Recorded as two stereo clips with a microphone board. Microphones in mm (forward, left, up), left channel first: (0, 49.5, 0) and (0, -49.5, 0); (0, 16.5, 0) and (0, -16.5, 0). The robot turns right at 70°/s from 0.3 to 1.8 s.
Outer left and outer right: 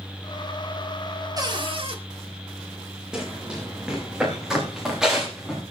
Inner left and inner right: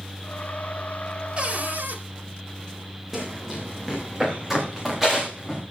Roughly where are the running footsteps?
Centre.